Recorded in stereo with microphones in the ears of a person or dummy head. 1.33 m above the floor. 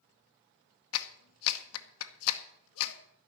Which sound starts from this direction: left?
A clap, at 0.9 s.